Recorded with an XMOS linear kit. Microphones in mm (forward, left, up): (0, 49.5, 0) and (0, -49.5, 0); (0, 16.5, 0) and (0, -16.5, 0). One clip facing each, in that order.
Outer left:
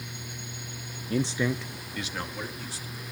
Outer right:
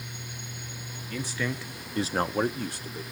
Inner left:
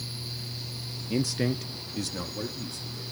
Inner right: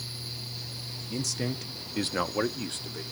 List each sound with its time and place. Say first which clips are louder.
1.1 s a man speaking: outer left 5 dB, inner left 5 dB; 35° left (ahead or behind), 0.9 m; by 3.0 s 60° right (ahead or behind), 1.7 m